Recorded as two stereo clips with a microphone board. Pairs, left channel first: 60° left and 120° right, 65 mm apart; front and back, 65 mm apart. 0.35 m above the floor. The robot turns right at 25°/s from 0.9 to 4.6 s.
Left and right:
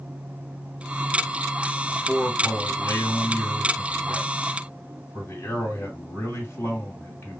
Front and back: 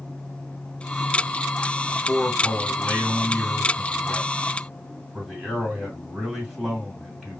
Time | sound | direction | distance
1.9 | a man speaking | 30° left | 2 m